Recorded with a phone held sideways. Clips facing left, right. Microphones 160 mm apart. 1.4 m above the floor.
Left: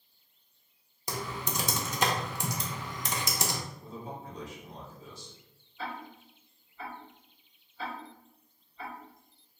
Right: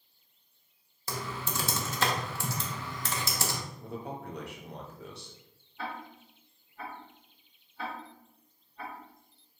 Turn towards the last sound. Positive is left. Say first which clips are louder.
# even
turn(degrees=-60)  # may be behind; listen again after turning